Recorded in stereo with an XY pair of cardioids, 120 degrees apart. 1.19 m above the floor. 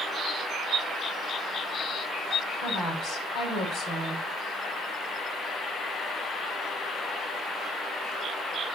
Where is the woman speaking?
65° left, 4 m.